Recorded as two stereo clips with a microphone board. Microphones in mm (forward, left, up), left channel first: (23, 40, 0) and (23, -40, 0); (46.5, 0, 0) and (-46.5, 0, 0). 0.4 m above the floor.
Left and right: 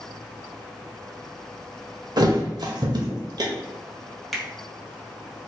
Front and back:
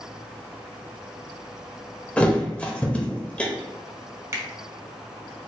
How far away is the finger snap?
About 0.8 m.